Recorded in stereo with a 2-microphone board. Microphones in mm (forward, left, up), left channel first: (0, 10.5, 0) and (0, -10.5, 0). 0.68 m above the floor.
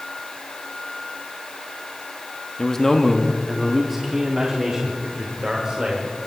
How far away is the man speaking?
About 0.9 m.